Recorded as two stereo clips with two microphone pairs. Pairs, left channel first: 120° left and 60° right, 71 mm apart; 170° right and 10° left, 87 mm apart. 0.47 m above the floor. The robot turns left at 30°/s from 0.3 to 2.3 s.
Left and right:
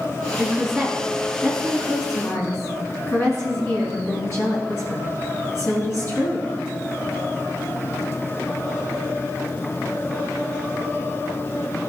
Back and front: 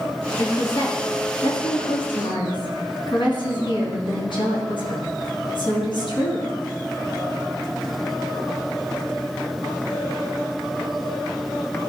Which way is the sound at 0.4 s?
130° right.